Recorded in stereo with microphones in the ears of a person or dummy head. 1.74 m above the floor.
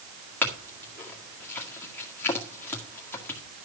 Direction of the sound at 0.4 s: 5° left (ahead or behind).